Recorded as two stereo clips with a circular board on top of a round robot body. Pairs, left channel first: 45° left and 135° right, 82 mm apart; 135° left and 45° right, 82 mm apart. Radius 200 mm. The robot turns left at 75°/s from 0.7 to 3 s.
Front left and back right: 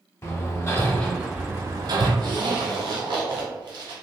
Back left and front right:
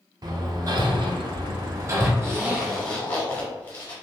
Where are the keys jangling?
I don't hear keys jangling.